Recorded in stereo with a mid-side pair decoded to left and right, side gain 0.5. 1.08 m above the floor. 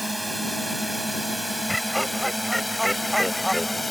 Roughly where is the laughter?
Ahead.